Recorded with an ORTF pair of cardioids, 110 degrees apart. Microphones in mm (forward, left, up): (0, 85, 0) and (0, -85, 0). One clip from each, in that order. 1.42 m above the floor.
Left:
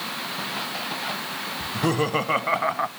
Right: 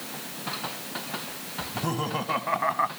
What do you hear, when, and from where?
1.6 s laughter: 40° left, 1.6 m; by 2.9 s 10° left, 0.9 m